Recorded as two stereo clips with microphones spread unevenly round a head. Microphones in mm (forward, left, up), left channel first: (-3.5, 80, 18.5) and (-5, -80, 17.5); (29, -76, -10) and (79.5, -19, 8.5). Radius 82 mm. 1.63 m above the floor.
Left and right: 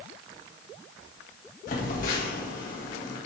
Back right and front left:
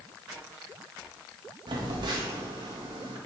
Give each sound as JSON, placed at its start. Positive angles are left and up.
{"t": 1.7, "sound": "a phone buzzing", "azimuth_deg": 50, "distance_m": 1.8}